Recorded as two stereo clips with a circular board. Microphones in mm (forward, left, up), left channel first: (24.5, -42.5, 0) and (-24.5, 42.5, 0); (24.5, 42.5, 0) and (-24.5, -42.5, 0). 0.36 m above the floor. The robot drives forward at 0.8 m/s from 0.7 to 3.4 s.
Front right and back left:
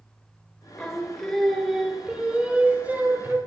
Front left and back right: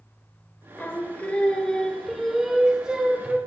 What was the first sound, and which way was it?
Singing, 10° left.